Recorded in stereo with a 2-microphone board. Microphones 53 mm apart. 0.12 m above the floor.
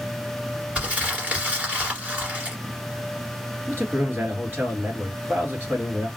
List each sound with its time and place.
0.8 s crumpling: 20° right (ahead or behind), 2.0 m
3.7 s a man speaking: 45° right (ahead or behind), 2 m